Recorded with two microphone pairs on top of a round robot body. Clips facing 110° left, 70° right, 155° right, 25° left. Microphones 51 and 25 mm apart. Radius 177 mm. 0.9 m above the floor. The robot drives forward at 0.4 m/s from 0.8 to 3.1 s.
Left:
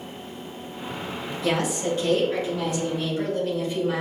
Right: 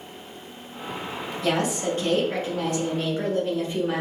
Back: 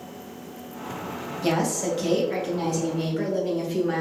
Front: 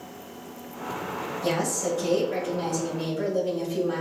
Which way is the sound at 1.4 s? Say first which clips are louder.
Even, back 3 dB; 115° right.